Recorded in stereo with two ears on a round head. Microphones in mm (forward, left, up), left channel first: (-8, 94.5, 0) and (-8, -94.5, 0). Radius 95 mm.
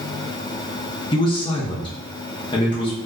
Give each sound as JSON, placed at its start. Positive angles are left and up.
{"t": 1.1, "sound": "a man speaking", "side_deg": 25, "distance_m": 0.6}